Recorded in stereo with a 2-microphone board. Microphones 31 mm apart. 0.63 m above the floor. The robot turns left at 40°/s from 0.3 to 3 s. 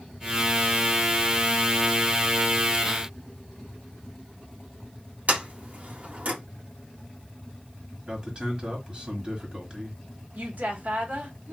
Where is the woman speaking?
60° right (ahead or behind), 1.4 m.